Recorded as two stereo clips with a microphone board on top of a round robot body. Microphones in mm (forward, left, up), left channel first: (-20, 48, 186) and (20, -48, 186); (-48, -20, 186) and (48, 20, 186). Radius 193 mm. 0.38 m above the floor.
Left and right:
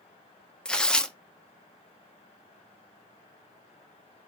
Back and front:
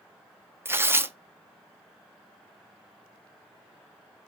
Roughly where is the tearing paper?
Ahead left.